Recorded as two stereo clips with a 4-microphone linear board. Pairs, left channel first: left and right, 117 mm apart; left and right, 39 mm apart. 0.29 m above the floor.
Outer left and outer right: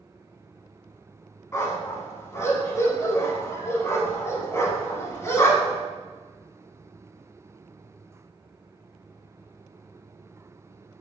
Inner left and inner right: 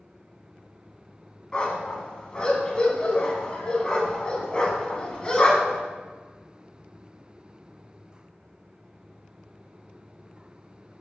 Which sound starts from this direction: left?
A dog barking, at 1.5 s.